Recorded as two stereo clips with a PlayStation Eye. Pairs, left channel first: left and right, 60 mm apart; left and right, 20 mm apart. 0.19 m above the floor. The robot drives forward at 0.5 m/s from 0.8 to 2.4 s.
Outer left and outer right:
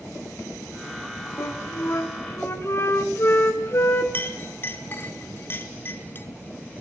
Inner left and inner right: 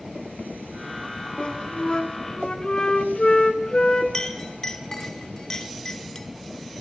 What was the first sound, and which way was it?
A flute, 55° left (ahead or behind).